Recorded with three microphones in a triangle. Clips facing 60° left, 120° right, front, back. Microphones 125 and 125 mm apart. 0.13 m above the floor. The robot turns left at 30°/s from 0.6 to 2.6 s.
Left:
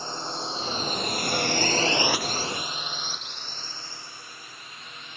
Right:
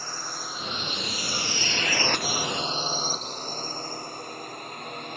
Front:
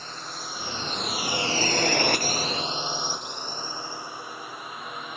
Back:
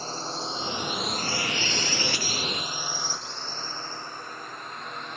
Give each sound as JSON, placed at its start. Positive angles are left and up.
{"t": 0.0, "sound": "a drone", "azimuth_deg": 125}